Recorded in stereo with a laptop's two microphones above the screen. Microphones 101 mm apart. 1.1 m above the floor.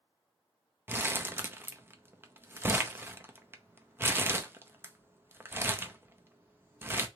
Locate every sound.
0.9 s crumpling: 20° right (ahead or behind), 0.5 m